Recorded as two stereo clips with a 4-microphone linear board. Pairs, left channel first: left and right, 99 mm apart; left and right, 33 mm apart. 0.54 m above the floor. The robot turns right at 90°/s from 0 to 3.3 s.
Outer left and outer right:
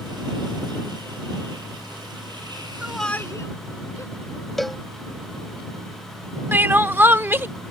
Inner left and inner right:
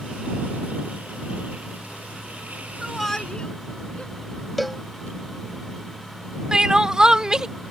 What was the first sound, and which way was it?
A shout, 15° right (ahead or behind).